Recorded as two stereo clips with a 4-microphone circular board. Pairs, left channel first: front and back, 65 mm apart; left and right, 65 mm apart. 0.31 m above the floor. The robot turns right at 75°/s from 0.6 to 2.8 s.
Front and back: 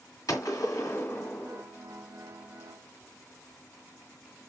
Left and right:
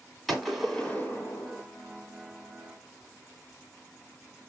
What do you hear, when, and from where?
0.3 s a gunshot: 5° left, 1.8 m; by 1.6 s 80° left, 1.8 m